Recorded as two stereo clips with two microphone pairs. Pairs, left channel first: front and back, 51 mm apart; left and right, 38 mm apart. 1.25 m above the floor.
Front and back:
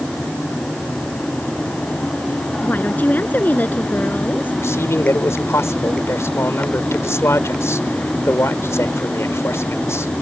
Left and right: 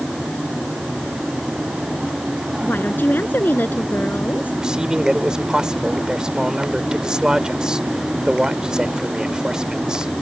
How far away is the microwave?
No microwave in this recording.